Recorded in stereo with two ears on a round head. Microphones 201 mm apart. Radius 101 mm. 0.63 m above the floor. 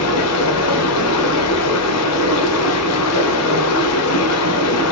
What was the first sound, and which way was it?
Running water, 80° left.